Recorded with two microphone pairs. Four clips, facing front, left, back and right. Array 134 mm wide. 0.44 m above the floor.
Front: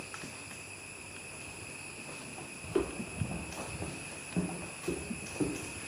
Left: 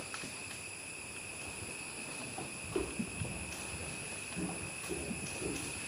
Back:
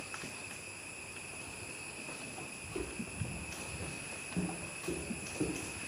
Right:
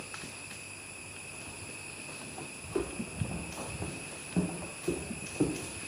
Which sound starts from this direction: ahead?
Footsteps, at 2.6 s.